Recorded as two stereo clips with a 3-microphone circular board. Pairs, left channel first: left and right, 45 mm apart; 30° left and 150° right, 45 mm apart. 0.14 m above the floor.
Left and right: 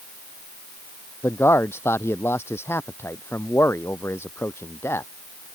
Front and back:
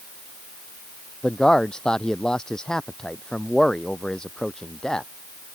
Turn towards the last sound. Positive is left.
turn(degrees=105)